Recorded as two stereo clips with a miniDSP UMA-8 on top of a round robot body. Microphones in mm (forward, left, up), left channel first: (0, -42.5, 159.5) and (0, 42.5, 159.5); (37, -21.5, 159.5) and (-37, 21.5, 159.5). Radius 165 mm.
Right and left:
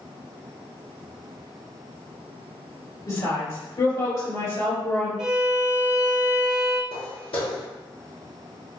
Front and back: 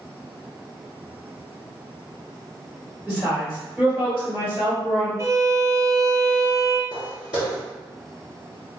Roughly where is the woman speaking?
Behind right.